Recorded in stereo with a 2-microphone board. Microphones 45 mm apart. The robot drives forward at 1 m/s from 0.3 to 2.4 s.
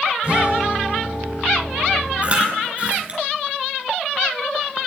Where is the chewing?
30° right (ahead or behind), 2.5 m.